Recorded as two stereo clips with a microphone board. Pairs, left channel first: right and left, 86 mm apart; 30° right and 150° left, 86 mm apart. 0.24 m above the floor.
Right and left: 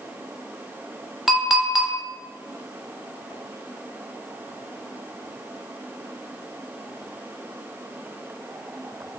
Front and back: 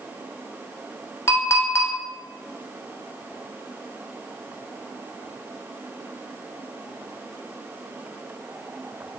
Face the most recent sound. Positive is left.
turn(degrees=5)